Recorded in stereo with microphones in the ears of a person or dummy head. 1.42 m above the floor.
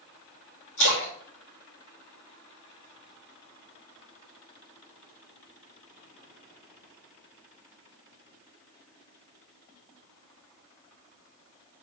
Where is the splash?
60° left (ahead or behind), 3 m.